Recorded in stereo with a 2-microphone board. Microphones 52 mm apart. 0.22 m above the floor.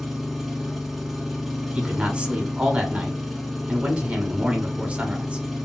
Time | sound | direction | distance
0.0 | an engine running | 5° right (ahead or behind) | 0.9 m
1.8 | a man speaking | 25° right (ahead or behind) | 1.1 m